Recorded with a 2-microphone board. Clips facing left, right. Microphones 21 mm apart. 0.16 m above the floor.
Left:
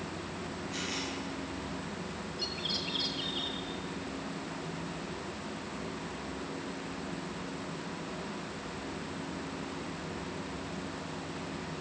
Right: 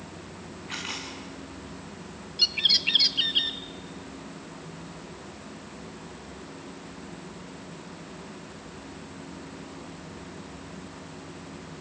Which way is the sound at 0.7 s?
85° right.